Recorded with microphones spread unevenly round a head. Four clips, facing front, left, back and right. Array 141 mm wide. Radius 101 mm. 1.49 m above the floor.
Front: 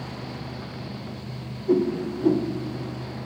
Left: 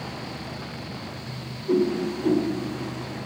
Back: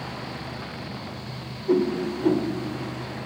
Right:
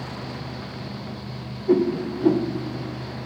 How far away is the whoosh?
About 1.1 m.